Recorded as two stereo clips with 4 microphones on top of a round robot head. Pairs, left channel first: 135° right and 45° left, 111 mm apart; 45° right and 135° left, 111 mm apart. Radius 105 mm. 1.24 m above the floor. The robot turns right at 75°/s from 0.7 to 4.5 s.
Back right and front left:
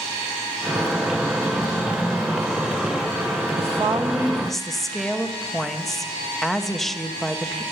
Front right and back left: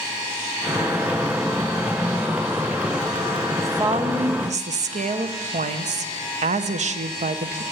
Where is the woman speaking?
65° left, 0.9 m; by 7.6 s 135° left, 0.9 m.